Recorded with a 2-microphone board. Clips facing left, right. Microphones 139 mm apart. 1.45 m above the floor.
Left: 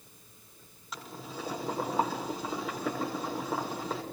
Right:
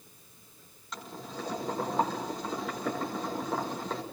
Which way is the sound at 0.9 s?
5° left (ahead or behind).